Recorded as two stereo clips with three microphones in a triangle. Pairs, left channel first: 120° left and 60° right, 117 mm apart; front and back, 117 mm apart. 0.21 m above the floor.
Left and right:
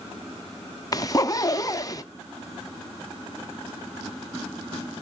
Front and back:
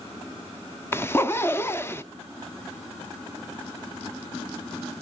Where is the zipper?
65° left, 0.5 m.